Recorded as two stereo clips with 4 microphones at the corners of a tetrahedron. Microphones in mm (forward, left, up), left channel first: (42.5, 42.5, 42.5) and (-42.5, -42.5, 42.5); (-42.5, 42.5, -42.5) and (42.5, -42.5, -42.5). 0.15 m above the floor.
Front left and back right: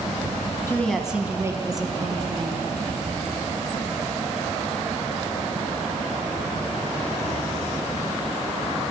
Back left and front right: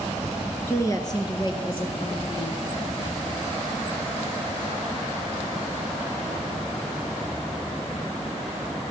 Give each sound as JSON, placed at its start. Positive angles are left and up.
{"t": 0.7, "sound": "a woman speaking", "azimuth_deg": 90, "distance_m": 1.1}